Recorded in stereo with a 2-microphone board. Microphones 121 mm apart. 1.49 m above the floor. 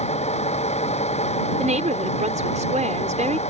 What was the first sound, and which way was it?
A vehicle, 60° left (ahead or behind).